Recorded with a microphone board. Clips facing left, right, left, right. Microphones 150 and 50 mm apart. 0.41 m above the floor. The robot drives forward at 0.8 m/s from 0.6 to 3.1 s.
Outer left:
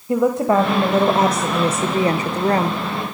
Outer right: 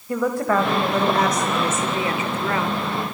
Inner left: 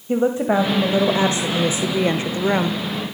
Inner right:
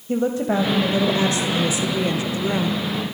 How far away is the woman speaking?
About 1.8 m.